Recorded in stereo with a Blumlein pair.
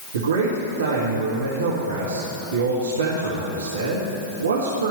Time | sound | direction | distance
0.1 | a man speaking | 70° right | 1.9 m